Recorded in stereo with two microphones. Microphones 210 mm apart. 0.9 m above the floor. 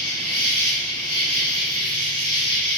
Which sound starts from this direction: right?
An insect, at 0.0 s.